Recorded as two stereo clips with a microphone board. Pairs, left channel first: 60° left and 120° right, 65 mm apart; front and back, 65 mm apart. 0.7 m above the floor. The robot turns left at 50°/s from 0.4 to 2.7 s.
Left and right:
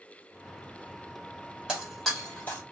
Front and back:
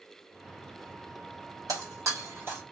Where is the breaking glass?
165° left, 1.9 m; by 2.6 s 120° left, 1.9 m.